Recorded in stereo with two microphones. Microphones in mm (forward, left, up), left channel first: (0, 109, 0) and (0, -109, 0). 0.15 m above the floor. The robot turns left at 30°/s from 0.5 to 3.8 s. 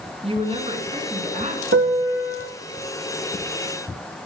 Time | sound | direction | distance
0.2 | a woman speaking | 65° right | 1.4 m
1.7 | a piano | 75° right (ahead or behind) | 1.7 m